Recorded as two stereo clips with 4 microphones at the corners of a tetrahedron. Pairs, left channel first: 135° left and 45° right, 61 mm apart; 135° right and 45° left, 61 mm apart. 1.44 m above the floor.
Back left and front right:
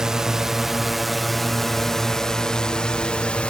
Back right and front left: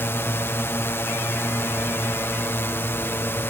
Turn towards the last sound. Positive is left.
turn(degrees=-160)